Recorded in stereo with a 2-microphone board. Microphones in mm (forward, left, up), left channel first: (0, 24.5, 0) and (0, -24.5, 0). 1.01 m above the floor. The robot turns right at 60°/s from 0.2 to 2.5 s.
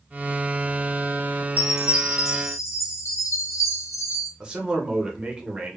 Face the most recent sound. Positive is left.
turn(degrees=-15)  # may be behind; listen again after turning